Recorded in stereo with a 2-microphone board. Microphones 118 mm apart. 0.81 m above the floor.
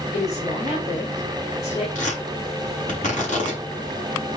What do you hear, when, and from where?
0.1 s a woman speaking: 75° left (ahead or behind), 3.5 m
1.9 s tearing paper: 85° left, 6 m